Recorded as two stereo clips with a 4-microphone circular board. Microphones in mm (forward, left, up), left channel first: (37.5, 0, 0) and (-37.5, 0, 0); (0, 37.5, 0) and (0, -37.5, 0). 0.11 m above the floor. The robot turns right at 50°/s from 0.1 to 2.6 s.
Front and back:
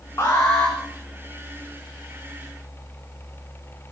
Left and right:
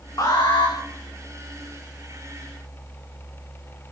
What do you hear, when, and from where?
0.2 s an alarm: 50° left, 6.5 m; by 0.8 s 80° left, 6.5 m